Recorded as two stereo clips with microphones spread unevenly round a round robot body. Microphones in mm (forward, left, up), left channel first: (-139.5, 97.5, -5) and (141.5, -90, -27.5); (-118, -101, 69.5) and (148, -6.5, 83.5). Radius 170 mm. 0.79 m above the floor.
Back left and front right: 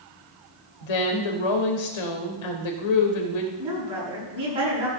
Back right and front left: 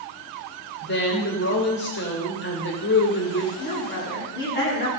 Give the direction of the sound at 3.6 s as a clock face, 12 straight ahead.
4 o'clock.